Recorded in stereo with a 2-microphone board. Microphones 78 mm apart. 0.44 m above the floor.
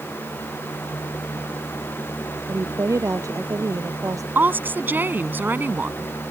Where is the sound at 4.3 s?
25° right (ahead or behind).